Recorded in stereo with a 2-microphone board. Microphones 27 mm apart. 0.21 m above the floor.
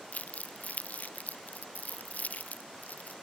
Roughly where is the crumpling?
Left.